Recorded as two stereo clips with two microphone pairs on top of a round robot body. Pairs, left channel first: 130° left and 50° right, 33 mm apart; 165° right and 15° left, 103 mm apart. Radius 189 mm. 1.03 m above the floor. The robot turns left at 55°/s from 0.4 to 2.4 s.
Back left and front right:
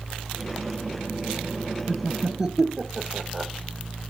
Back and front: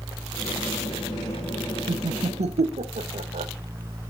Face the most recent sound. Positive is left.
turn(degrees=20)